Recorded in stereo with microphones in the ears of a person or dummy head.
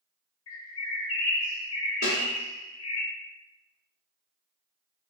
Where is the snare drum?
55° left (ahead or behind), 1.9 m.